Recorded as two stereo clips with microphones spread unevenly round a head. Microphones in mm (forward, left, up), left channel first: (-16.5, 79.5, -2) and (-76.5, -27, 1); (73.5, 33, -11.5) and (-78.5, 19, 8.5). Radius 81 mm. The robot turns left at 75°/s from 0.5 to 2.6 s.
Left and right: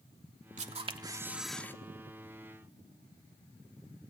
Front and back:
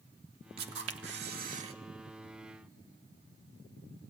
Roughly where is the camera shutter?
Behind right.